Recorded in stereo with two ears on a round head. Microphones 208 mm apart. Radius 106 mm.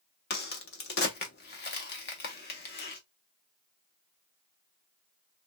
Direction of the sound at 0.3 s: 50° left (ahead or behind).